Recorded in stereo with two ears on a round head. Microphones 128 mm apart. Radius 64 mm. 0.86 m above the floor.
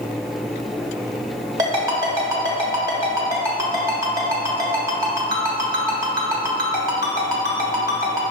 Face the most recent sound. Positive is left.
turn(degrees=-25)  # may be behind; listen again after turning